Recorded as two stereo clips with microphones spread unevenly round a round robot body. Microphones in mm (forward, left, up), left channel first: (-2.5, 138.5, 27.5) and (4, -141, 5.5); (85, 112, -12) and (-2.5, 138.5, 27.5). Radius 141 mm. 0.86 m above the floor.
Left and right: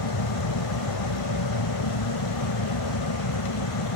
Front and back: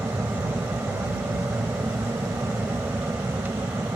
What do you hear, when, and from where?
0.0 s an aircraft: 95° left